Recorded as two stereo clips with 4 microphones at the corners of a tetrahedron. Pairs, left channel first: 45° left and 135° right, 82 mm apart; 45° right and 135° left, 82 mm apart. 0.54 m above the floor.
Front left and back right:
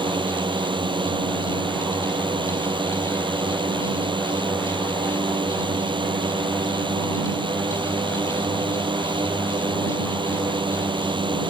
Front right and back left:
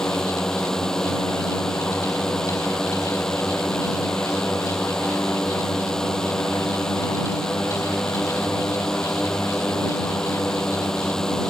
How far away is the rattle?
I don't hear a rattle.